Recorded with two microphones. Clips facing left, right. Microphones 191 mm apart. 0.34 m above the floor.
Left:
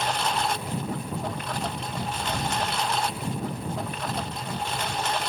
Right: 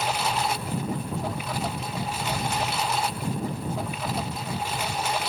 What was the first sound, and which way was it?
A lawn mower, 5° right (ahead or behind).